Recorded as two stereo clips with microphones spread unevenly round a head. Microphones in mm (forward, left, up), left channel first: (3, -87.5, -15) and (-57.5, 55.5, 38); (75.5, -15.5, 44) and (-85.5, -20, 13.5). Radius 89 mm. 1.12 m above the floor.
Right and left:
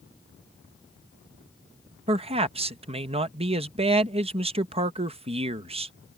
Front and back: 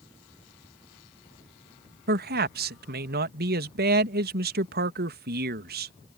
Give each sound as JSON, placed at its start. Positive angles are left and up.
{"t": 2.1, "sound": "a man speaking", "azimuth_deg": 170}